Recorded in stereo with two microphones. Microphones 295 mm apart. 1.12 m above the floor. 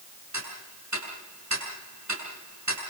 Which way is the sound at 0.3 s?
70° right (ahead or behind).